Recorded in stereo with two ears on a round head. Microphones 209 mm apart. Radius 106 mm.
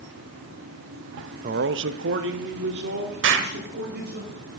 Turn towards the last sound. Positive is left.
turn(degrees=-55)  # may be behind; listen again after turning